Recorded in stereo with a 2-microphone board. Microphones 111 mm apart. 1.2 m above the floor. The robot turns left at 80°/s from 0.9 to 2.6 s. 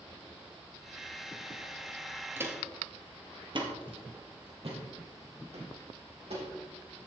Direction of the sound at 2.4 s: 20° right (ahead or behind).